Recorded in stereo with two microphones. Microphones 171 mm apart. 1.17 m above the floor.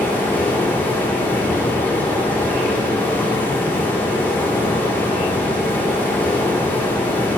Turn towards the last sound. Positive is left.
turn(degrees=10)  # may be behind; listen again after turning